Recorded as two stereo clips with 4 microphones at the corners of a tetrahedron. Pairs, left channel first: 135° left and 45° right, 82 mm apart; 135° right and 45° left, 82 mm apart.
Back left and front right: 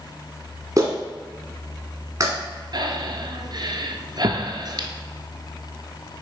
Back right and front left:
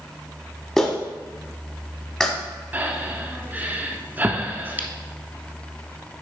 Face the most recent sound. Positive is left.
turn(degrees=-20)